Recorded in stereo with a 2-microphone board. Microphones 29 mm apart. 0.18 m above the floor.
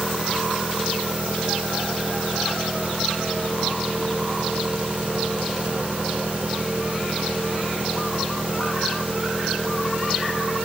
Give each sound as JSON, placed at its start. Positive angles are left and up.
{"t": 0.0, "sound": "an engine running", "side_deg": -55}